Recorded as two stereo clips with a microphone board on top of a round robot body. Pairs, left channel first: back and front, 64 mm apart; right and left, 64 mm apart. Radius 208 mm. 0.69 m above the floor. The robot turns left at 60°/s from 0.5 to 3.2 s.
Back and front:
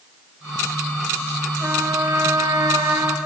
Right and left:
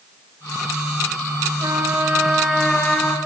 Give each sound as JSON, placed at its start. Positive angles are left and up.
{"t": 1.6, "sound": "a trumpet", "azimuth_deg": 60, "distance_m": 2.5}